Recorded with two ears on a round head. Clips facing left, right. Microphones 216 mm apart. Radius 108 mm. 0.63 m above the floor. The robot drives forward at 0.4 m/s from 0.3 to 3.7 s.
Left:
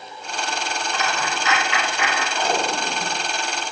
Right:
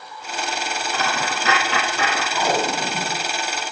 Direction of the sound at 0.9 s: 30° right (ahead or behind).